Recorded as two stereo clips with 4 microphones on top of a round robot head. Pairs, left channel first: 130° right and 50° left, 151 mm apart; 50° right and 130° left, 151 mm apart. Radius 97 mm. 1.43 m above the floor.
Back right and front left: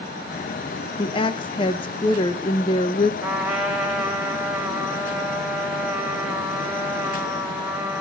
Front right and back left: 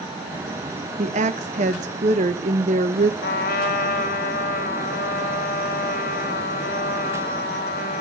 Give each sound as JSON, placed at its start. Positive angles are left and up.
{"t": 1.0, "sound": "a woman speaking", "azimuth_deg": 175, "distance_m": 1.0}
{"t": 3.2, "sound": "a trumpet", "azimuth_deg": -30, "distance_m": 2.5}